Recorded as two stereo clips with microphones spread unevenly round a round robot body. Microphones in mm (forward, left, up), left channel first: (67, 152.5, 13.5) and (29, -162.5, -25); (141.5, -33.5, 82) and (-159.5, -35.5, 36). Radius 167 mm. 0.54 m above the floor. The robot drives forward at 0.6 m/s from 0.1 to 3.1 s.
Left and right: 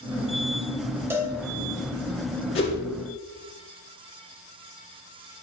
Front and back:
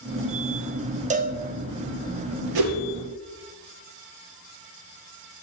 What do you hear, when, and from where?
1.1 s a cowbell: 160° right, 0.8 m; by 1.4 s 165° right, 0.9 m
2.5 s a whoosh: 155° left, 2.5 m